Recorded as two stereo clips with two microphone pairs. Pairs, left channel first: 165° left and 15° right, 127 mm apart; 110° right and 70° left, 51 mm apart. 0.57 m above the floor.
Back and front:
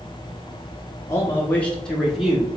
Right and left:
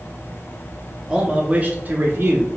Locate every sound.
1.1 s a man speaking: 145° left, 0.6 m; by 2.5 s 70° left, 0.9 m